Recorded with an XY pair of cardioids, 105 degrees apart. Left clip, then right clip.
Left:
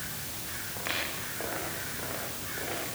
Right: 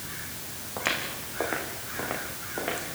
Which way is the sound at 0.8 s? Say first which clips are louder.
Right 4 dB; 55° right.